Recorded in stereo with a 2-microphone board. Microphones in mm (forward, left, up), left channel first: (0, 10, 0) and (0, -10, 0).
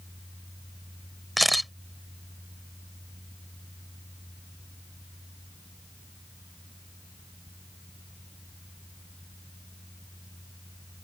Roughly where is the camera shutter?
Centre.